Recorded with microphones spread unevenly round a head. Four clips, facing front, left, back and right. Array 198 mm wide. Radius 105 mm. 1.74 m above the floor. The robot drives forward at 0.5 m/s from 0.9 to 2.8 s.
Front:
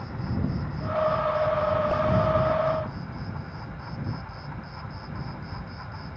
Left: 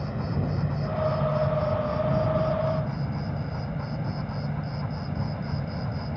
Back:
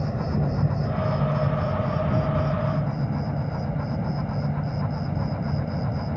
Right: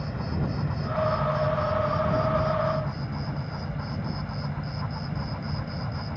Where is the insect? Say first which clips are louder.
Left 1 dB, back 5 dB; 170° left.